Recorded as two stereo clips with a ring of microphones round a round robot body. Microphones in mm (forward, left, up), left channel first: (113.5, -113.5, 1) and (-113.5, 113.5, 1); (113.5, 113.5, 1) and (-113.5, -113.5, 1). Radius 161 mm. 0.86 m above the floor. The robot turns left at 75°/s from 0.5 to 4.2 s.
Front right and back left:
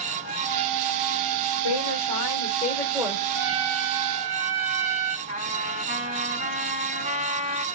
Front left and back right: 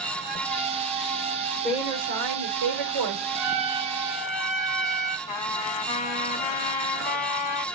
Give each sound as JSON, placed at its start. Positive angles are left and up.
{"t": 1.6, "sound": "a woman speaking", "azimuth_deg": -40, "distance_m": 3.5}
{"t": 3.3, "sound": "a trumpet", "azimuth_deg": -160, "distance_m": 4.5}
{"t": 5.3, "sound": "a trumpet", "azimuth_deg": 65, "distance_m": 3.5}